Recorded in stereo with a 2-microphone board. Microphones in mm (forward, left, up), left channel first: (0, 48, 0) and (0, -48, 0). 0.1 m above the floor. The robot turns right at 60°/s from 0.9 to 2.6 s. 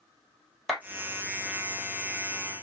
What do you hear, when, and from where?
0.7 s a clap: 5° right (ahead or behind), 2.5 m